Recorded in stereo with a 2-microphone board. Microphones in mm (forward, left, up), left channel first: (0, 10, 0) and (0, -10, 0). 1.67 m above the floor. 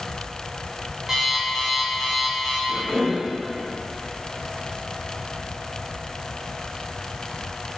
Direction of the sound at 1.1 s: 15° right (ahead or behind).